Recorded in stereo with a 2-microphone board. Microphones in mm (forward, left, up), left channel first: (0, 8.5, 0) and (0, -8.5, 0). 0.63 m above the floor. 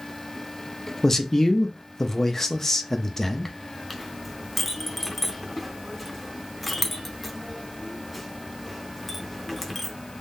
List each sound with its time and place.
1.0 s a man speaking: 20° left (ahead or behind), 0.6 m
3.9 s a clink: 10° left (ahead or behind), 0.7 m